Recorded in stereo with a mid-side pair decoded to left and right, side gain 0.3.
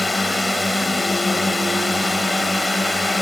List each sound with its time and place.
0.0 s a drone: 25° left